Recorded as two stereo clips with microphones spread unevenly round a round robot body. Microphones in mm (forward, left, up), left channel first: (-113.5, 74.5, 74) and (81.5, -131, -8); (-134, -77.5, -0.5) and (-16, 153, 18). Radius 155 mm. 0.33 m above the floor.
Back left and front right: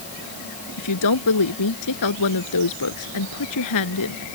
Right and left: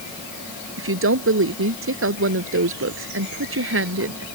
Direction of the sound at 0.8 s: 100° left.